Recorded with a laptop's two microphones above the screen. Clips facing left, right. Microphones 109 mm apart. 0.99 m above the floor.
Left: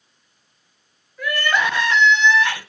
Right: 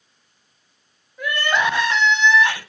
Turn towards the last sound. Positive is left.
turn(degrees=-20)  # may be behind; listen again after turning